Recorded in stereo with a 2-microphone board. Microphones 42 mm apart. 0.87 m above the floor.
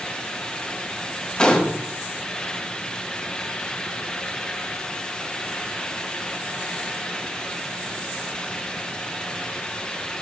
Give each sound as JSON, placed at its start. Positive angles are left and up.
{"t": 1.4, "sound": "a gunshot", "side_deg": 25, "distance_m": 1.2}